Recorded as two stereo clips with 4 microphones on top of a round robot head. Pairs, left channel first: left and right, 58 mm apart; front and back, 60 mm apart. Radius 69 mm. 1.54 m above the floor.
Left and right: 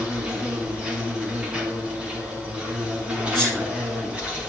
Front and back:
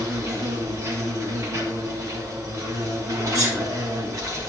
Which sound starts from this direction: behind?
An insect, at 0.0 s.